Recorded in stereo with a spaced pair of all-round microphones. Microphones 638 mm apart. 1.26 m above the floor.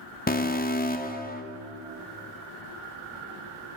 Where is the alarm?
15° left (ahead or behind), 0.5 m.